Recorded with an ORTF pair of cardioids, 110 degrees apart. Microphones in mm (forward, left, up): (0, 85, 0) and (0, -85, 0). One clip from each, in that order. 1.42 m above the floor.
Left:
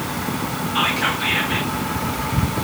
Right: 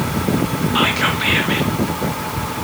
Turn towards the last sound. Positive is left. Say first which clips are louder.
# right 2 dB
turn(degrees=-35)